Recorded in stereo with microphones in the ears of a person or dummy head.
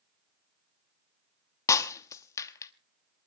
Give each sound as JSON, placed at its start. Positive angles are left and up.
{"t": 1.7, "sound": "breaking glass", "side_deg": 15, "distance_m": 1.0}